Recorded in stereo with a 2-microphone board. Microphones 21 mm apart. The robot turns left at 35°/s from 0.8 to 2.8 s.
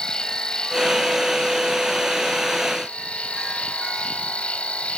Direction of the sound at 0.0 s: 140° left.